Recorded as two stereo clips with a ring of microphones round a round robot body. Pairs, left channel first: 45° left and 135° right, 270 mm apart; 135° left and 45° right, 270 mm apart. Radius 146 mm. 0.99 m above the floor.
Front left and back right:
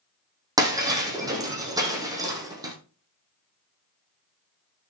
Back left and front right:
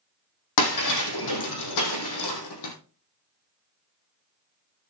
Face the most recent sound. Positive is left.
turn(degrees=150)